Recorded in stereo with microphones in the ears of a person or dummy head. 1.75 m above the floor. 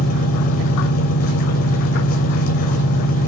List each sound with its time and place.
0.0 s an engine running: 50° left (ahead or behind), 2.5 m